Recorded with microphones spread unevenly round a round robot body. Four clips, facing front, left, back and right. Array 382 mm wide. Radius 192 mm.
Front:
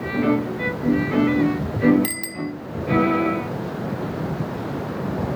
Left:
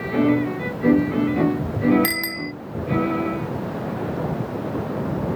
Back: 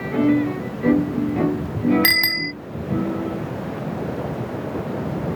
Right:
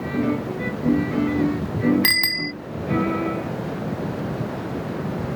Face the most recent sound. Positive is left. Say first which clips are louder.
# even, back 4 dB
turn(degrees=-150)